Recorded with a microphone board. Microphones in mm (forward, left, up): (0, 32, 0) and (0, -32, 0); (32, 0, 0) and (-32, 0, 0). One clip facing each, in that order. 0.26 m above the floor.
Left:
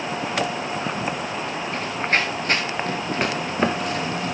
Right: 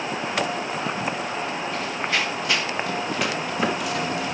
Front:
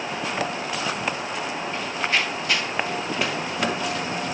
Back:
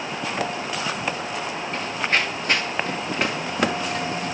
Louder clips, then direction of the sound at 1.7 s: Left 4 dB, back 2 dB; 135° left.